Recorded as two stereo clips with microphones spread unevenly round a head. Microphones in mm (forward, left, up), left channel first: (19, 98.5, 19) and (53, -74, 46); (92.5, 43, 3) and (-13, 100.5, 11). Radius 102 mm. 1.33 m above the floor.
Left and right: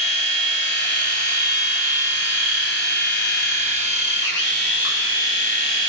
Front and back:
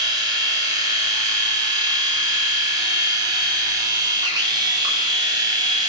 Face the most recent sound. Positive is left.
turn(degrees=90)